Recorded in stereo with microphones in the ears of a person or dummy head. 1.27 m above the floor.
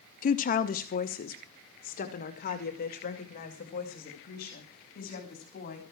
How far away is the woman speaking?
About 0.7 m.